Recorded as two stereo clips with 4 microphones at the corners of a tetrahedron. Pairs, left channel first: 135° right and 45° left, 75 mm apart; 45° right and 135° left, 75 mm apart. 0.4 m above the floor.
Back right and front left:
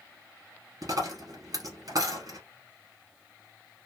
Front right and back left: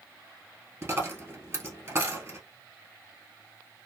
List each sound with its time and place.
0.8 s a dropped coin: 80° left, 1.2 m